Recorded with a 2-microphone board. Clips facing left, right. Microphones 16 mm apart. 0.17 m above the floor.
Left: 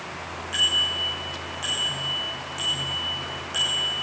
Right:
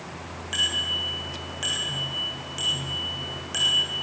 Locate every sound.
0.5 s a bicycle bell: 30° right (ahead or behind), 9 m; by 3.9 s 20° right (ahead or behind), 7.5 m